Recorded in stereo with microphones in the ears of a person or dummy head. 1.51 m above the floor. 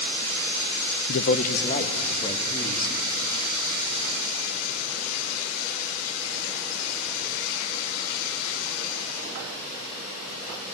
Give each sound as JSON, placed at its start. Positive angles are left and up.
{"t": 1.1, "sound": "a man speaking", "side_deg": 55, "distance_m": 0.8}